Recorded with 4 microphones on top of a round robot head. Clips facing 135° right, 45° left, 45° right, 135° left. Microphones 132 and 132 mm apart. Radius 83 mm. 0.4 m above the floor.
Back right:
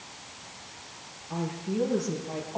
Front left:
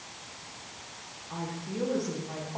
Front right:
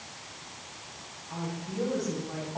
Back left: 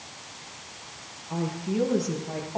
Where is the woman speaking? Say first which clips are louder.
Back right 5 dB, back left 7 dB; 155° left, 10 m; by 2.6 s 160° left, 11 m.